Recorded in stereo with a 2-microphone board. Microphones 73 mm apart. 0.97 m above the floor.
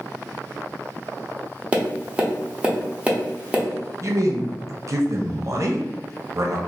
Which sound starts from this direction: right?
A man speaking, at 4.0 s.